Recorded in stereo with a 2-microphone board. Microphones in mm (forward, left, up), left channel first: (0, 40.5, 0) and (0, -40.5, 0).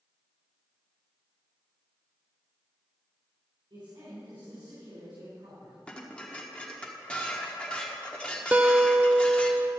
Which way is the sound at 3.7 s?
85° right.